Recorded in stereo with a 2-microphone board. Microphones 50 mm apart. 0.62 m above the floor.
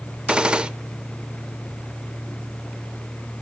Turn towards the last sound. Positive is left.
turn(degrees=-20)  # may be behind; listen again after turning